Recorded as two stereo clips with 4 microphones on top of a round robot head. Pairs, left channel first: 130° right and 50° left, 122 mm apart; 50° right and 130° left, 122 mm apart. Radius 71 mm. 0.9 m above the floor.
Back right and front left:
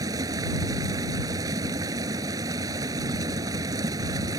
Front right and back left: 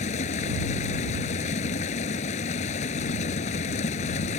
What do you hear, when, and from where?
0.0 s running water: 15° right